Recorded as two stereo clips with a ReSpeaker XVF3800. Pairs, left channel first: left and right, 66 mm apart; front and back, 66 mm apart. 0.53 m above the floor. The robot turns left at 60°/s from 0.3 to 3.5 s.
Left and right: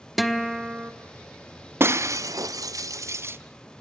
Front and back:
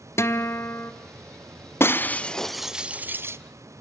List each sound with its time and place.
0.2 s a guitar: straight ahead, 1.1 m; by 0.9 s 40° right, 1.1 m
1.8 s breaking glass: 45° right, 0.6 m; by 3.4 s 140° right, 0.6 m